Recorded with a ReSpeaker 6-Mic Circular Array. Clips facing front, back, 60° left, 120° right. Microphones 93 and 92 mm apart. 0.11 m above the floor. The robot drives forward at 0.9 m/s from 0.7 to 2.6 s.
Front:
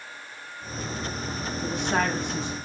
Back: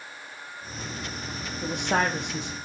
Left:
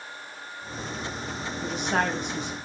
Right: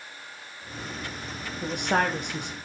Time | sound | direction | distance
1.6 | a woman speaking | 150° right | 5 m